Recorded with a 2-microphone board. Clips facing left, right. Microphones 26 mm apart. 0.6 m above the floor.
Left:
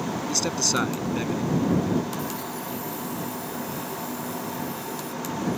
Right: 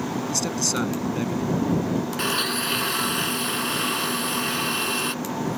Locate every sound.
0.3 s a man speaking: 15° left (ahead or behind)
2.2 s a blender: 90° right